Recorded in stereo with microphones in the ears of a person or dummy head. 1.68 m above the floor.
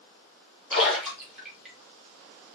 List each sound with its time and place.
0.7 s a splash: 5° right (ahead or behind), 3.5 m